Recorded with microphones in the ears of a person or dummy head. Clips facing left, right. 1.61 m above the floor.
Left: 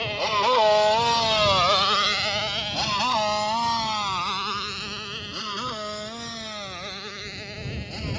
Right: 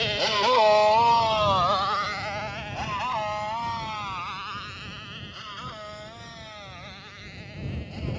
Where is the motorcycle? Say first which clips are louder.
Even; 20° right (ahead or behind); by 8.2 s 85° left.